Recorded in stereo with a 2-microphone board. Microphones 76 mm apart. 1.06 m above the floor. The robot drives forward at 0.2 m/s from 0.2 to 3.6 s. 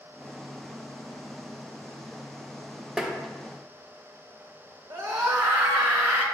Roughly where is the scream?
Right.